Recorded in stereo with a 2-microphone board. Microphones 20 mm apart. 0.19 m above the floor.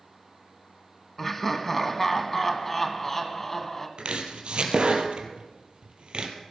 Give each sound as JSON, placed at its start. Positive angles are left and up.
{"t": 1.2, "sound": "laughter", "side_deg": 10, "distance_m": 1.1}
{"t": 4.0, "sound": "chopping", "side_deg": -60, "distance_m": 1.6}